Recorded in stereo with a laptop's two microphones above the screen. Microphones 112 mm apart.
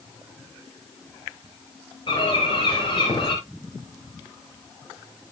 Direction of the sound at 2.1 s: 50° left (ahead or behind).